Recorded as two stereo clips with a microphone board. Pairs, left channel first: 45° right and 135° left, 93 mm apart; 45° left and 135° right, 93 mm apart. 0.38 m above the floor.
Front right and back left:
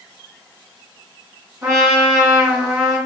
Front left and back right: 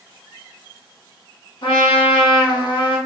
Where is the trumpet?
75° left, 1.5 m.